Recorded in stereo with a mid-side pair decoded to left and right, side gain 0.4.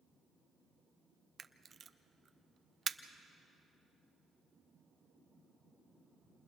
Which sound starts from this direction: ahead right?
A camera shutter, at 1.4 s.